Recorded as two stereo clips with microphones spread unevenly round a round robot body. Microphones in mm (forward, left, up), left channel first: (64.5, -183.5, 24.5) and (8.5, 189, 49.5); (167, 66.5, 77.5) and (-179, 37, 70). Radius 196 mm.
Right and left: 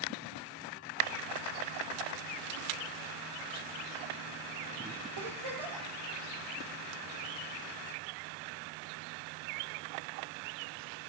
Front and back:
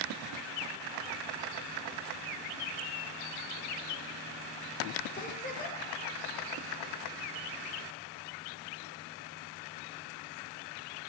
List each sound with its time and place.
5.2 s a giggle: 75° left, 8.5 m